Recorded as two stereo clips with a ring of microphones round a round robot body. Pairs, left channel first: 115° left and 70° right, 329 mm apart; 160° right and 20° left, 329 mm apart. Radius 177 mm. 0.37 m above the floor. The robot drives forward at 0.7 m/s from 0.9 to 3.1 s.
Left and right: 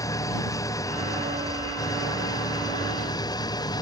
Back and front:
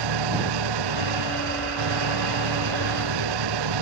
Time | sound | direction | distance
0.0 | an engine running | 30° left | ?